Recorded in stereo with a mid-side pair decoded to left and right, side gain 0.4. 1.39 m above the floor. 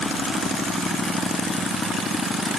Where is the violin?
I don't hear a violin.